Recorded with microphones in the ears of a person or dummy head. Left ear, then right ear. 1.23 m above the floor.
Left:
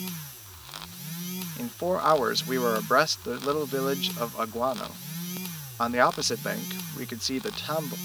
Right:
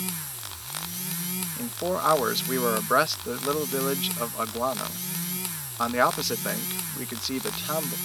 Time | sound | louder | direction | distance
1.6 | a man speaking | left 1 dB | 10° left (ahead or behind) | ?